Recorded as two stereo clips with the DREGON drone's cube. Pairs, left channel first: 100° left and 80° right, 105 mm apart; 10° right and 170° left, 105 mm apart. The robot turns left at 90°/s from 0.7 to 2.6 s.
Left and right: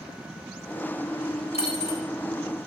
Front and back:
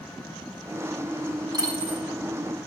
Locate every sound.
1.5 s a dropped coin: 120° left, 5.5 m; by 2.0 s 75° left, 5.5 m